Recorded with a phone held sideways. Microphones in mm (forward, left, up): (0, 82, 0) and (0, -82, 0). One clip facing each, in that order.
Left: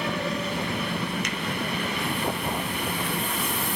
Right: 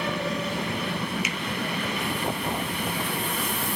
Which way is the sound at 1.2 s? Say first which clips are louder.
Even; 10° right (ahead or behind).